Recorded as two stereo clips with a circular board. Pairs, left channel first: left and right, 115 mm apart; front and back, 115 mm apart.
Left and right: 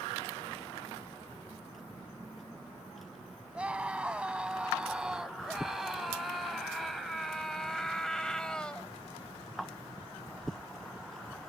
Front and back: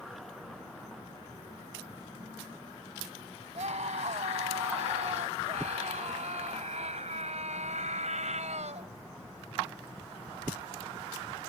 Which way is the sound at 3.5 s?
170° right.